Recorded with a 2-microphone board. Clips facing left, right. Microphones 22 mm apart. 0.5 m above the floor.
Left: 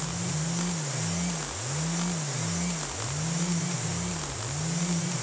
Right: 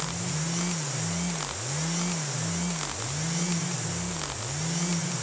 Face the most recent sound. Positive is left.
No sound to turn to.